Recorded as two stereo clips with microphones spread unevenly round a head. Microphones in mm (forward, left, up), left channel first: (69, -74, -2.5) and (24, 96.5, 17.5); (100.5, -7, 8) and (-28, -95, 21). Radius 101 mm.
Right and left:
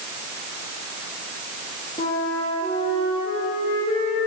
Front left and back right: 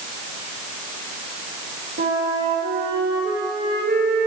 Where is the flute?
135° right, 2 m.